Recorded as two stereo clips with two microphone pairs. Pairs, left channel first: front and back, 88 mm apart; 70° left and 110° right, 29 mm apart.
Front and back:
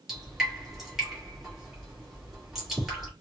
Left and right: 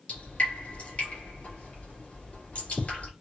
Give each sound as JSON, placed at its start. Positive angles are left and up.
{"t": 0.1, "sound": "dripping", "azimuth_deg": 95, "distance_m": 1.7}